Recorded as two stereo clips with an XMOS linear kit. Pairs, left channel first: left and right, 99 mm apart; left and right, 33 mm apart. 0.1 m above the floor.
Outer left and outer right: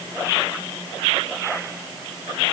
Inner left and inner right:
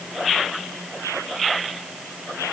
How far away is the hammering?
I don't hear hammering.